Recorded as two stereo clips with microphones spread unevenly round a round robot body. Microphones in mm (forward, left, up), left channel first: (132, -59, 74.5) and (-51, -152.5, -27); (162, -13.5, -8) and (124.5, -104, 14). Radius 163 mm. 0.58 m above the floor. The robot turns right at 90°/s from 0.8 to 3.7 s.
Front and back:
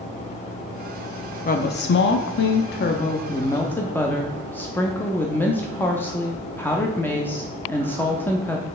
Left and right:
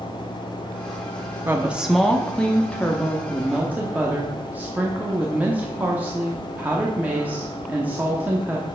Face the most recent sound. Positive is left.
turn(degrees=160)